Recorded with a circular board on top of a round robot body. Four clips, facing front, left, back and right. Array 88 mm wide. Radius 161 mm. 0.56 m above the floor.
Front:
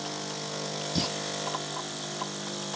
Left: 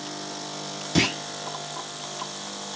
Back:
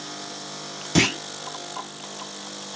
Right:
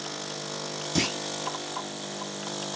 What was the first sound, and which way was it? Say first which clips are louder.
A clunk: left 5 dB, back 12 dB; 165° left.